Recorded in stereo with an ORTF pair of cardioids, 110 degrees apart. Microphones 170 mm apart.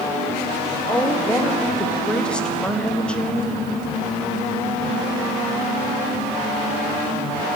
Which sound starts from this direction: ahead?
A woman speaking, at 0.9 s.